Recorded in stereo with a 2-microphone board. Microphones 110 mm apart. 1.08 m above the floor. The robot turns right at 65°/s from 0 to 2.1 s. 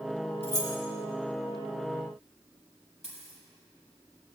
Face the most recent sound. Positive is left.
turn(degrees=80)